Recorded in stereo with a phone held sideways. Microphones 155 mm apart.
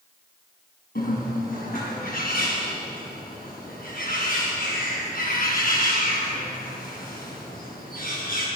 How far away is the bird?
About 5 m.